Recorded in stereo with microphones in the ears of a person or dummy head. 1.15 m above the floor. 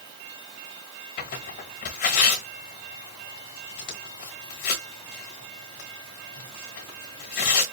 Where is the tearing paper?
30° left (ahead or behind), 1.1 m.